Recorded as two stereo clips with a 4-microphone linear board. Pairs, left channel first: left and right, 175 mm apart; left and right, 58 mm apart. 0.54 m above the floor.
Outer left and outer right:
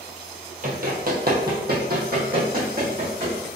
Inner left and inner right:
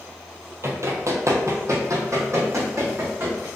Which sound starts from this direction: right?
Running footsteps, at 0.6 s.